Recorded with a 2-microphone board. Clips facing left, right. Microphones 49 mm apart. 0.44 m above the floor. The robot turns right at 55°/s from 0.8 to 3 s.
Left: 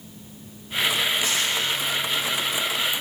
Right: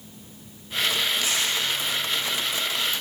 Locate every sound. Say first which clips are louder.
1.2 s tearing paper: left 1 dB; 70° left (ahead or behind), 4 m; by 1.5 s 75° left (ahead or behind), 4 m